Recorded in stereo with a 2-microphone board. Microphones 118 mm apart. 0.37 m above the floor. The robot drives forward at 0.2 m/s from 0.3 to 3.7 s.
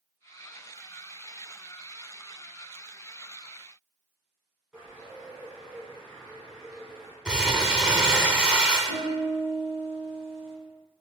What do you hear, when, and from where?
4.7 s a bird: 10° right (ahead or behind), 1.6 m
7.2 s crumpling: 10° right (ahead or behind), 0.5 m
8.9 s a piano: 65° right (ahead or behind), 0.9 m